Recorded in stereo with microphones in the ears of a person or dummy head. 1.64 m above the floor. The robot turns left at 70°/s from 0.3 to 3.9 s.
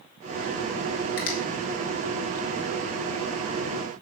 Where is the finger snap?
65° left (ahead or behind), 1.9 m; by 1.4 s 55° left (ahead or behind), 1.9 m.